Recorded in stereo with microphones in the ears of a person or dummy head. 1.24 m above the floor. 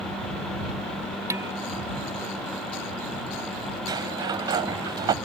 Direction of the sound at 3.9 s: 20° right (ahead or behind).